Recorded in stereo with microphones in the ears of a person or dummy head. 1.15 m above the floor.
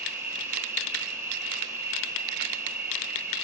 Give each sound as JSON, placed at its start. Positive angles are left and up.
{"t": 0.0, "sound": "an insect", "side_deg": -10, "distance_m": 1.4}